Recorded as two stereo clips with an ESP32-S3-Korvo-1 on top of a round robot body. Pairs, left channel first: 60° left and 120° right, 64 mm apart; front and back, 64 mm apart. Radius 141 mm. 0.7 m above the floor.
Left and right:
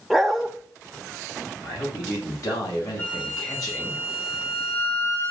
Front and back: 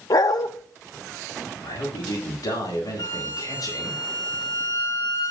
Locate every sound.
0.1 s a dog barking: 30° right, 1.0 m
1.6 s a man speaking: 30° left, 8 m
3.0 s a flute: straight ahead, 6 m